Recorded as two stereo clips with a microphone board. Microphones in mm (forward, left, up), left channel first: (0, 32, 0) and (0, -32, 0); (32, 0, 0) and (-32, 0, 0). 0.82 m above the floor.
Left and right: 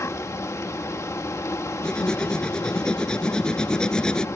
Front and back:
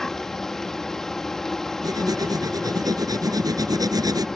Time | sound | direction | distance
0.0 | an insect | 80° left | ?
1.8 | writing | 165° left | ?